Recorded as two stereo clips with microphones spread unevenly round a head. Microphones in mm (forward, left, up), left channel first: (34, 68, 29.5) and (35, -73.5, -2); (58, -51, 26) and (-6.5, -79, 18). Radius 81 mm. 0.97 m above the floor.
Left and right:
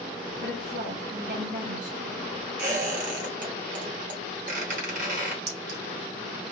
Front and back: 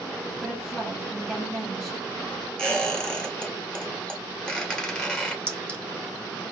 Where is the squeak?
60° right, 2.5 m.